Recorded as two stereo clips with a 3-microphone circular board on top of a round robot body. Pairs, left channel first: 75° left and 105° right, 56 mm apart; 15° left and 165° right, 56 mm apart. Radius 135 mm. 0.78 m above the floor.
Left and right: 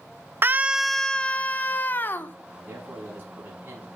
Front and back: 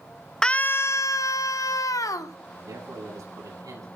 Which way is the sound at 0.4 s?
65° right.